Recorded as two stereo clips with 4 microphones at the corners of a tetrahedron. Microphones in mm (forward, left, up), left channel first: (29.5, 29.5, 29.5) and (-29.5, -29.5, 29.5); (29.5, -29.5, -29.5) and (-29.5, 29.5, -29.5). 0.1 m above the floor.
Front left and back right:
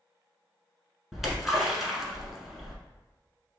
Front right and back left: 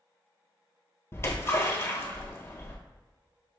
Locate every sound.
1.1 s a splash: 50° right, 1.1 m